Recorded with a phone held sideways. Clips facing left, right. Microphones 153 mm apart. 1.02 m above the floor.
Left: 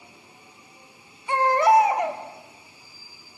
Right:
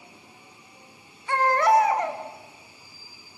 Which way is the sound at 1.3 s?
20° left (ahead or behind).